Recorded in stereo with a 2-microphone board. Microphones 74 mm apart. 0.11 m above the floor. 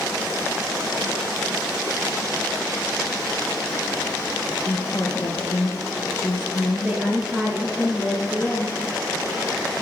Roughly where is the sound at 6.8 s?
Centre.